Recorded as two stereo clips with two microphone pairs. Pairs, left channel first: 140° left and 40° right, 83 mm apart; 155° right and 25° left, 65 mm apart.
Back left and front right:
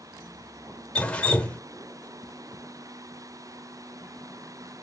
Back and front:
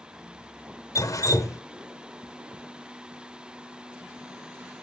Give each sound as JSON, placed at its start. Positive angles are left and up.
{"t": 0.9, "sound": "dripping", "azimuth_deg": -145, "distance_m": 0.9}